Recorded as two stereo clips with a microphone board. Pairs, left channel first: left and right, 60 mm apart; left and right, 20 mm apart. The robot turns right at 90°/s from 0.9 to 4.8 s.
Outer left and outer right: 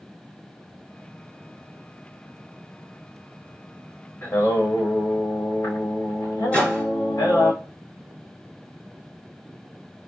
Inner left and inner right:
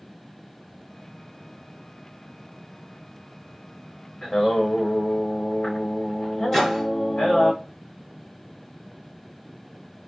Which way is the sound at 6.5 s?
20° left (ahead or behind).